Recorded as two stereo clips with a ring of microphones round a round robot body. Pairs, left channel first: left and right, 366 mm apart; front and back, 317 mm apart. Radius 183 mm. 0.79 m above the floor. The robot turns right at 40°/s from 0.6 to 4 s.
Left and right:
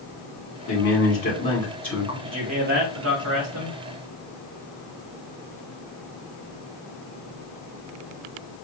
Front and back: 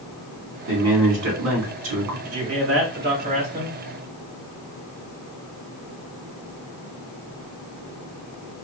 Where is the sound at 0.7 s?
130° left, 2.5 m; by 2.1 s 170° right, 2.5 m.